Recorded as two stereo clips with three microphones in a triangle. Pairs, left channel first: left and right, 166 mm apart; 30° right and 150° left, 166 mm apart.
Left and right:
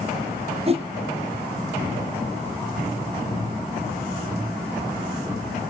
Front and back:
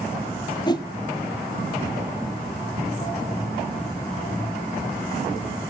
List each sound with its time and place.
0.7 s a whoosh: 80° right, 0.8 m